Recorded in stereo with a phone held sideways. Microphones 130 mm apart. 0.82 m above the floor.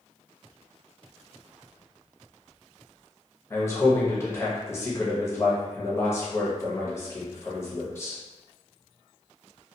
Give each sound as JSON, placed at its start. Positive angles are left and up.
{"t": 3.5, "sound": "a man speaking", "side_deg": 20, "distance_m": 0.8}